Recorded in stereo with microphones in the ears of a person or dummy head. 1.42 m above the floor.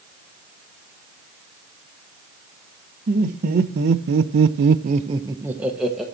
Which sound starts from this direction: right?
Laughter, at 3.1 s.